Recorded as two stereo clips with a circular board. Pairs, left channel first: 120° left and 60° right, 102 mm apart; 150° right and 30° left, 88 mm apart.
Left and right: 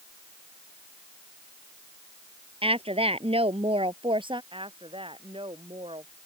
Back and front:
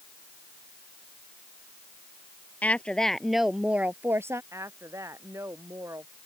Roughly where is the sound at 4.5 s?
Ahead right.